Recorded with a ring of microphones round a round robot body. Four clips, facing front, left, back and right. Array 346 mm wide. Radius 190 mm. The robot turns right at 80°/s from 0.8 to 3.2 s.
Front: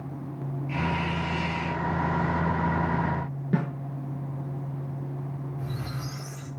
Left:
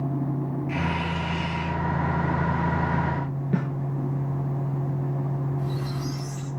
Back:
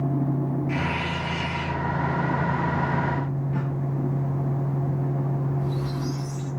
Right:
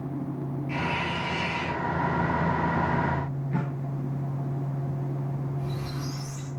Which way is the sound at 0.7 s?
155° left.